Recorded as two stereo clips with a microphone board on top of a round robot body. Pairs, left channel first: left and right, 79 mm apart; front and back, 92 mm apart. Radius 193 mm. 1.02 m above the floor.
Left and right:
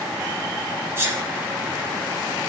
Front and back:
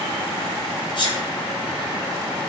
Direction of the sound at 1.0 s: 30° right.